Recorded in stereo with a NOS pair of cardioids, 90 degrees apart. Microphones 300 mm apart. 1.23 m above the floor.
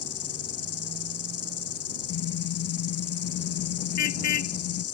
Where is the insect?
55° left.